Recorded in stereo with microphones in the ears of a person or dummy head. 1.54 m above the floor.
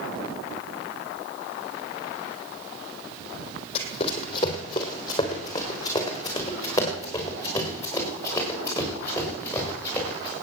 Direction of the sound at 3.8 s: 35° left (ahead or behind).